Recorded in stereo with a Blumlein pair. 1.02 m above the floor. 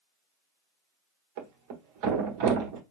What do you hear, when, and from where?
1.4 s a thud: 45° right, 1.2 m